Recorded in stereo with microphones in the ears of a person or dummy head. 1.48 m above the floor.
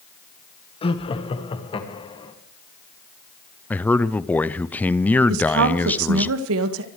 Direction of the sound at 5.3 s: 75° right (ahead or behind).